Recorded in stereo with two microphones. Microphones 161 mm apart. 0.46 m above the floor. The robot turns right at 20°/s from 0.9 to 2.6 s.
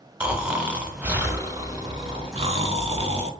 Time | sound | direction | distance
0.2 | snoring | 170° right | 0.6 m